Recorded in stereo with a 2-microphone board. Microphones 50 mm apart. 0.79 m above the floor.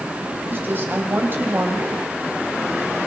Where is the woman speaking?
45° right (ahead or behind), 4.5 m.